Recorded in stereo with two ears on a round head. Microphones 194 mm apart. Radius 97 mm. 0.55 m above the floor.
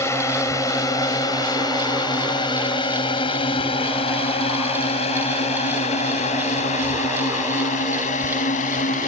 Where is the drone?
15° left (ahead or behind); by 9.1 s 35° left (ahead or behind).